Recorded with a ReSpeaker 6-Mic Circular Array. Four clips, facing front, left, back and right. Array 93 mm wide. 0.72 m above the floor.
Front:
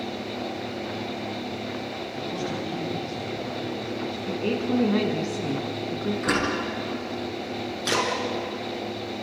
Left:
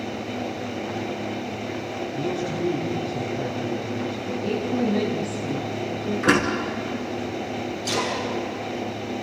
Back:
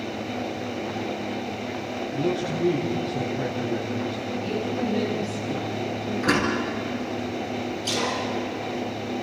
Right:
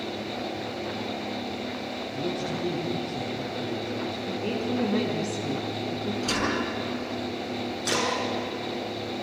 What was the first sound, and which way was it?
A man speaking, 175° left.